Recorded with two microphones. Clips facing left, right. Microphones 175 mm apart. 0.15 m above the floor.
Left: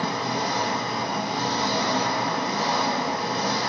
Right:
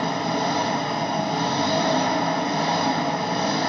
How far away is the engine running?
About 5 m.